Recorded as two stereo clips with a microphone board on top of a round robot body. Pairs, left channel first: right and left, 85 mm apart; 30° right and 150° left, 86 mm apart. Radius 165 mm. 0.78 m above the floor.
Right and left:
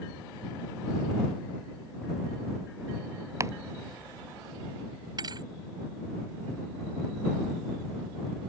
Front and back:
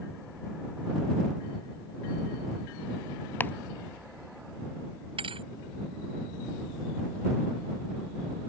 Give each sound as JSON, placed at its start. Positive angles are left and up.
{"t": 3.4, "sound": "chopping", "azimuth_deg": 35}
{"t": 5.2, "sound": "a thud", "azimuth_deg": 135}